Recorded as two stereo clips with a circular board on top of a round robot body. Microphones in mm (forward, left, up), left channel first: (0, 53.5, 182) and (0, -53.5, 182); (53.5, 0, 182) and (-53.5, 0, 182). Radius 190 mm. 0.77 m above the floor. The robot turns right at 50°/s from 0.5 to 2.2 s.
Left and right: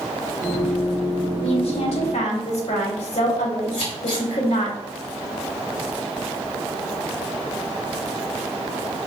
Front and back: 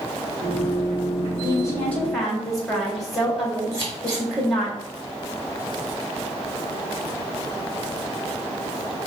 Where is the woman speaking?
50° left, 1.9 m; by 4.7 s 90° left, 1.9 m.